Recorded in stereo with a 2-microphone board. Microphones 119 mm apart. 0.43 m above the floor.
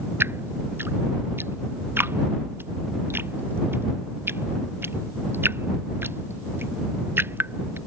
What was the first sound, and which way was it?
Dripping, 20° right (ahead or behind).